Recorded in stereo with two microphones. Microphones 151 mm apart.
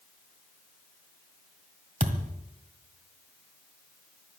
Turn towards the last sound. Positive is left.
turn(degrees=-60)  # may be behind; listen again after turning